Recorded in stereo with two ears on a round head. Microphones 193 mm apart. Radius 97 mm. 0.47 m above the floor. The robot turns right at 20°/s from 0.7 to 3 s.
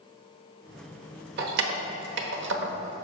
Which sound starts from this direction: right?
Keys jangling, at 1.4 s.